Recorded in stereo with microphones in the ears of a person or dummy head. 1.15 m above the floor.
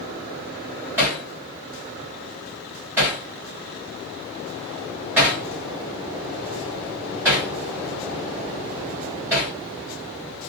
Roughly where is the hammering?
Centre.